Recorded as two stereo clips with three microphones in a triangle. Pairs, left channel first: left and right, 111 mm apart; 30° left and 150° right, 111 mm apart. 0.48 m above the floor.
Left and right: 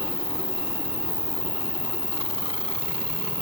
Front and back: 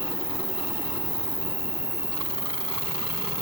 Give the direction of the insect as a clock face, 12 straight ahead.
10 o'clock.